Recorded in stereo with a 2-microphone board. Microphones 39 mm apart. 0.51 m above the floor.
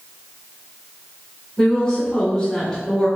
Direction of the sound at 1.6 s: 20° left (ahead or behind).